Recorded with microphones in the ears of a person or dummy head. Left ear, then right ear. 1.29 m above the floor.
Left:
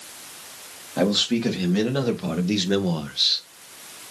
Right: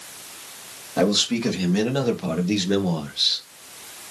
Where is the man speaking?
5° right (ahead or behind), 2.5 m; by 3.4 s 10° left (ahead or behind), 0.9 m.